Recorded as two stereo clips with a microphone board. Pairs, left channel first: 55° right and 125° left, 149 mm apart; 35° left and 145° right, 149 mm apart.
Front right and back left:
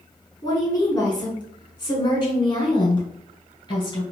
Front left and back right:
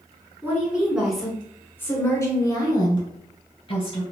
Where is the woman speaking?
85° right, 1.5 m; by 4.0 s straight ahead, 2.5 m.